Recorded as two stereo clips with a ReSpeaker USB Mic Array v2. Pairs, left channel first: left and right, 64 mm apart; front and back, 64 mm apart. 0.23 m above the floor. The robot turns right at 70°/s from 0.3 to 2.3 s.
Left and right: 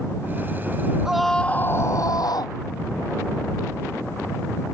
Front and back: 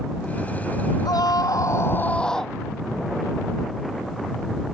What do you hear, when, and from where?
1.1 s a scream: 10° right; by 2.5 s 80° left